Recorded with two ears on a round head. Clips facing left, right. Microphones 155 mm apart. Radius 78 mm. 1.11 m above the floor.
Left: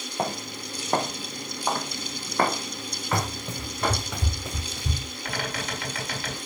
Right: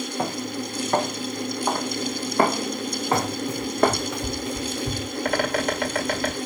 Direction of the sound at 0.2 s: 20° left (ahead or behind).